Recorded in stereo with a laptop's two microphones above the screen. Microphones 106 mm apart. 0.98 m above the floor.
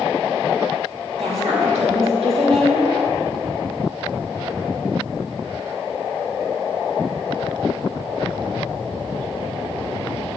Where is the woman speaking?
75° right (ahead or behind), 2 m.